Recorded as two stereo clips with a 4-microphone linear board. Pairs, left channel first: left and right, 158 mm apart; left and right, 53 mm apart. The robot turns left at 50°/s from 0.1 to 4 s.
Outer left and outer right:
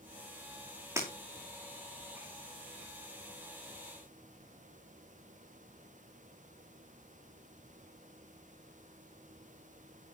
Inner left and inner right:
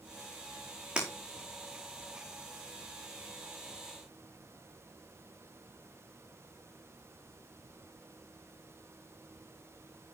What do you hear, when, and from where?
1.0 s breaking glass: 20° right (ahead or behind), 5.5 m; by 1.1 s 10° right (ahead or behind), 5.5 m